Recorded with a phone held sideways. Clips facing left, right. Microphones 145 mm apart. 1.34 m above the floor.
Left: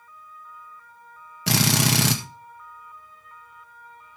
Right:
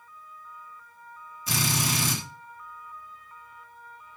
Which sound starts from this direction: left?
A drill, at 1.5 s.